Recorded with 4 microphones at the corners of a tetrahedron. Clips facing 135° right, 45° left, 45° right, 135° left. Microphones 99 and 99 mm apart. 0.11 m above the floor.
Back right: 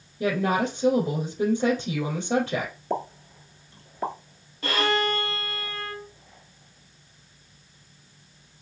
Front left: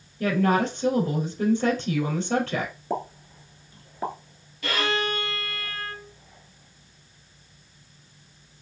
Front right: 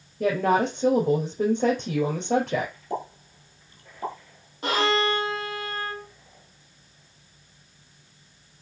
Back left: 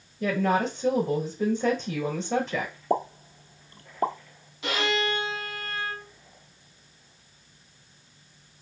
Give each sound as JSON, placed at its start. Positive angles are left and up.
{"t": 0.2, "sound": "a woman speaking", "azimuth_deg": -60, "distance_m": 3.0}
{"t": 2.9, "sound": "a pop", "azimuth_deg": 130, "distance_m": 1.0}
{"t": 4.6, "sound": "a violin", "azimuth_deg": -85, "distance_m": 1.1}